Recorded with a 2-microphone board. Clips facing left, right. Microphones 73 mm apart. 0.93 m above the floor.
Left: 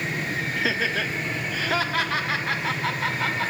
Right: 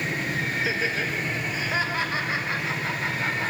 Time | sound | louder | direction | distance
0.6 | laughter | left 3 dB | 70° left (ahead or behind) | 1.9 m